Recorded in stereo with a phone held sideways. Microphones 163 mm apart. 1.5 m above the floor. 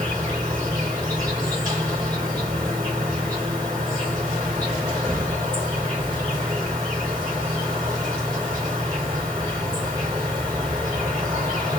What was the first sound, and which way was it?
An insect, 25° right (ahead or behind).